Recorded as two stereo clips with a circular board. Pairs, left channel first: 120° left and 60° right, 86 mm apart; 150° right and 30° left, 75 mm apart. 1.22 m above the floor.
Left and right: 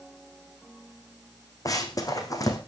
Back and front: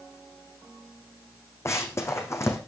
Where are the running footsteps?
160° left, 2.5 m.